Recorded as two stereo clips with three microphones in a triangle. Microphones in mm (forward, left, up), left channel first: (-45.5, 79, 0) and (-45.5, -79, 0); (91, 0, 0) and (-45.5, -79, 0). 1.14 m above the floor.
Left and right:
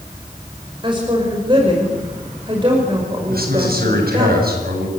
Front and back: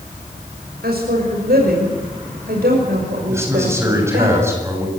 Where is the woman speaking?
150° right, 5.5 m.